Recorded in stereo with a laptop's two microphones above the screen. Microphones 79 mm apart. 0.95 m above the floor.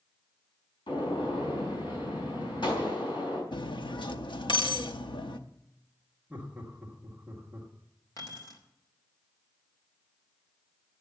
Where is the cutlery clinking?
85° left, 0.8 m.